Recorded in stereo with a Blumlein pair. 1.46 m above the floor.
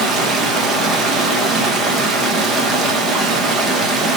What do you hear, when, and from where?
0.0 s running water: 15° right, 1.0 m